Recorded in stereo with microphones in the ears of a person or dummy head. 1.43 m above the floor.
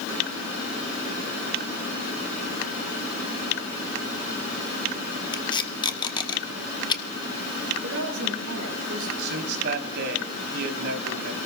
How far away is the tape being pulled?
About 0.9 m.